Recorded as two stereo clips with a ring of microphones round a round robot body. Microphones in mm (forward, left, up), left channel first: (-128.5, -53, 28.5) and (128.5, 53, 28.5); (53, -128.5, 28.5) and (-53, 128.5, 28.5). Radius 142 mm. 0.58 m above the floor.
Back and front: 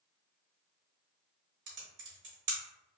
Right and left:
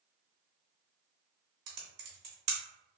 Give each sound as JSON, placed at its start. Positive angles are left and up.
{"t": 1.7, "sound": "typing on a keyboard", "azimuth_deg": 75, "distance_m": 1.0}